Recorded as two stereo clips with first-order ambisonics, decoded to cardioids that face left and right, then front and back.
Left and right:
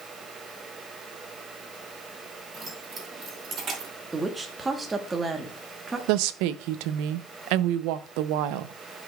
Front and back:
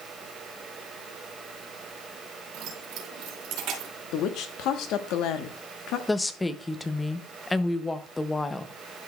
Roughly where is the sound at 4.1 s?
Ahead.